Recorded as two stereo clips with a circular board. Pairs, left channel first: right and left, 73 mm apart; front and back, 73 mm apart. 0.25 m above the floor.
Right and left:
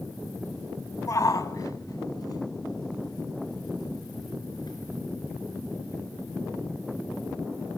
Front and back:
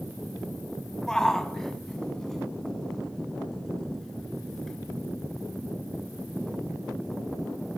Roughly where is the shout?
Right.